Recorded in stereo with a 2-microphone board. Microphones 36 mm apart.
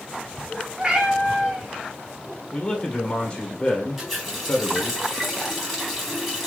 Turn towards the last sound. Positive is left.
turn(degrees=0)  # may be behind; listen again after turning